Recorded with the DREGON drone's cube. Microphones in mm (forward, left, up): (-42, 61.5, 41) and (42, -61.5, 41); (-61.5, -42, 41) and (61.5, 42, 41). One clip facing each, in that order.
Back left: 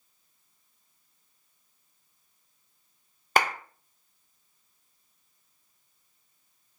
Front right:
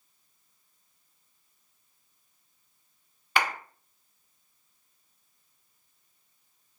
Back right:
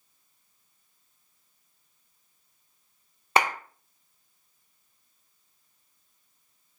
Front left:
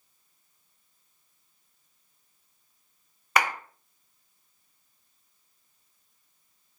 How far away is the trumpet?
I don't hear a trumpet.